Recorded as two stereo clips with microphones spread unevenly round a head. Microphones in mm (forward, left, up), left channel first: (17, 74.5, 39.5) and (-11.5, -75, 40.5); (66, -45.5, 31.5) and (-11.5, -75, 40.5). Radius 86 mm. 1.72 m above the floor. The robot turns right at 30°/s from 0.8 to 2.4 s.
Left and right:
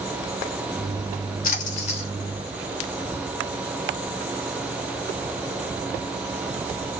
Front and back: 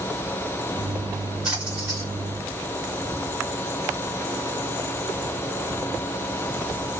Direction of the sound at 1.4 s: 115° left.